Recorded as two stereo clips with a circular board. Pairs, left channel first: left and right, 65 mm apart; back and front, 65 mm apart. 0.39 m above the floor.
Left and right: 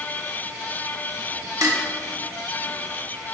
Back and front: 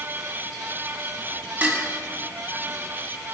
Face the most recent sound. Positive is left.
turn(degrees=-65)